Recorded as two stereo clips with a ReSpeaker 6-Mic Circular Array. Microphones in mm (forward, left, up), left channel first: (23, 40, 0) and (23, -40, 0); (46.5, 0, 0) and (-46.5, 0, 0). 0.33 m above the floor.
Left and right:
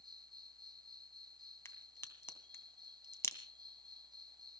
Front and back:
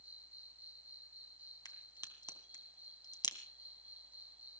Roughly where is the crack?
Ahead left.